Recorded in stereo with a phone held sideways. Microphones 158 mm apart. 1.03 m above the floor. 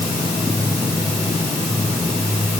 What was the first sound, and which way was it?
Only background noise.